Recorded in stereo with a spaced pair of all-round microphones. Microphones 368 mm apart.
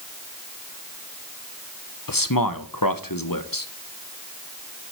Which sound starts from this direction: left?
A man speaking, at 2.1 s.